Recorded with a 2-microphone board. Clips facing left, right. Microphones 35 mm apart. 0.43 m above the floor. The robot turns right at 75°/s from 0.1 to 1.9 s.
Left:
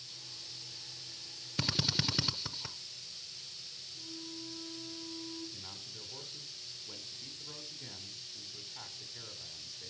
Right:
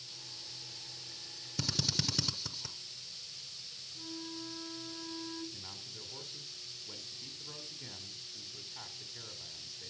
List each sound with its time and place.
1.6 s a drill: 40° left (ahead or behind), 0.7 m; by 2.8 s 25° left (ahead or behind), 0.7 m
4.0 s a flute: 60° right (ahead or behind), 2.5 m
5.5 s a man speaking: centre (ahead or behind), 1.7 m